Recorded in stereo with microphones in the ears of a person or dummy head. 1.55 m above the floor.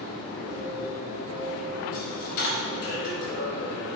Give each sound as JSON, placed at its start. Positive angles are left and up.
{"t": 0.0, "sound": "a machine running", "side_deg": 55, "distance_m": 1.7}
{"t": 1.9, "sound": "a dropped coin", "side_deg": 50, "distance_m": 1.4}